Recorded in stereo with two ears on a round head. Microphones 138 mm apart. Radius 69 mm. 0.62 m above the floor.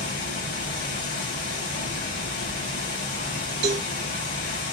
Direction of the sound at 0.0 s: 70° left (ahead or behind).